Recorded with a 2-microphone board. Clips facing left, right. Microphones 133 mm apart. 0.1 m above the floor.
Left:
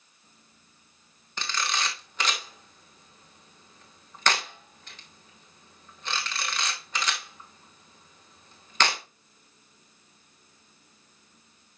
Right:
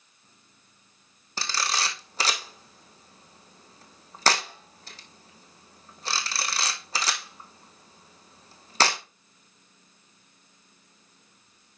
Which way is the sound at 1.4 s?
35° right (ahead or behind).